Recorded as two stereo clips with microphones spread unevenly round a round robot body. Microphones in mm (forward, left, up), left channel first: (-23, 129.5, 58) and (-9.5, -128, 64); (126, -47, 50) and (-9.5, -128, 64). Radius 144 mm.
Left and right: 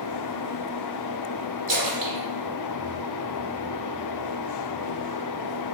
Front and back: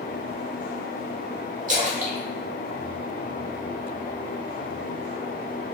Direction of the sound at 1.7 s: 120° right.